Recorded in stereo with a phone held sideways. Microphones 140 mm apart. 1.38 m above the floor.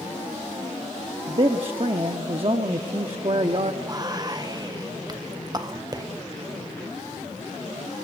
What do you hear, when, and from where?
1.3 s a man speaking: 45° right (ahead or behind), 0.7 m
3.8 s whispering: 30° right (ahead or behind), 1.0 m